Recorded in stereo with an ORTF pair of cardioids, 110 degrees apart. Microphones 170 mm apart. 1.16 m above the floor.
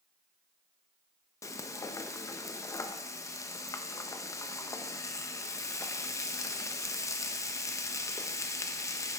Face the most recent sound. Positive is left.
turn(degrees=20)